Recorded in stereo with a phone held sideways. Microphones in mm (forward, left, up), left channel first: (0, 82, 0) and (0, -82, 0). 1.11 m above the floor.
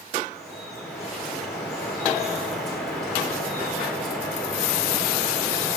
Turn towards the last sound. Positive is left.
turn(degrees=0)  # may be behind; listen again after turning